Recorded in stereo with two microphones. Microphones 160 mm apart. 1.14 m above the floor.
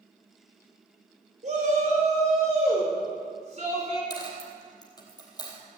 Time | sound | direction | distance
1.4 | a shout | 50° right (ahead or behind) | 4.5 m
4.1 | a dropped coin | 25° left (ahead or behind) | 3 m